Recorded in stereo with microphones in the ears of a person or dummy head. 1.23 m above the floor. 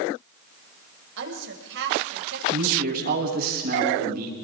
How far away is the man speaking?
About 8 m.